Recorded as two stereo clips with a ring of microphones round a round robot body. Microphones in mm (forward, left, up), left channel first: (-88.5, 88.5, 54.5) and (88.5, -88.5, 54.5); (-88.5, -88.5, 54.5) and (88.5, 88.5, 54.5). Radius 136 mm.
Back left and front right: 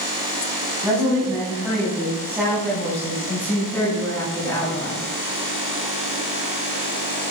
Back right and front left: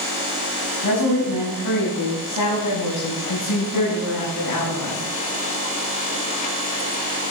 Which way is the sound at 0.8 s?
125° right.